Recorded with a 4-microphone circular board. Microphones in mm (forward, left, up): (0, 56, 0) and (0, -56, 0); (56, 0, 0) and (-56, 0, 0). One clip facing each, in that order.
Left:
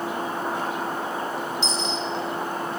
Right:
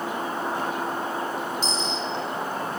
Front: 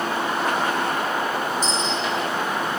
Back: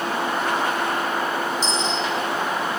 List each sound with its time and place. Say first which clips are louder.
1.6 s a dropped coin: left 1 dB, even; 40° right, 3 m